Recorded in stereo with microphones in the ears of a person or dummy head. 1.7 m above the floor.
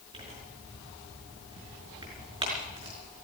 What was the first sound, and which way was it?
Tearing paper, 35° right (ahead or behind).